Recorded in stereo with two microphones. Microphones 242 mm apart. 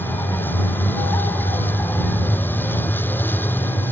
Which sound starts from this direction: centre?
A vehicle, at 0.0 s.